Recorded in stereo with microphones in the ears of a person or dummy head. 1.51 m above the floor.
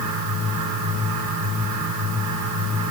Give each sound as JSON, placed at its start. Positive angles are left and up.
{"t": 0.0, "sound": "a fan", "side_deg": -75, "distance_m": 7.5}